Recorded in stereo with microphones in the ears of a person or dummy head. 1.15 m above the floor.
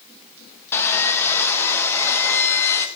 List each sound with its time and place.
0.7 s sawing: 15° left (ahead or behind), 1.1 m